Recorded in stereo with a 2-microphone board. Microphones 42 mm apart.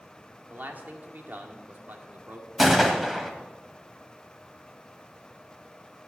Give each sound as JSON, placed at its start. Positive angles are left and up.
{"t": 0.5, "sound": "a man speaking", "side_deg": -55, "distance_m": 1.9}
{"t": 2.6, "sound": "a gunshot", "side_deg": -5, "distance_m": 1.7}